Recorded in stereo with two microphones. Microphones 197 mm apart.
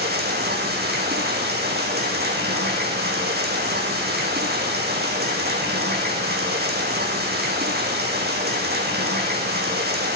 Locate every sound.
0.0 s running water: 55° right (ahead or behind), 5 m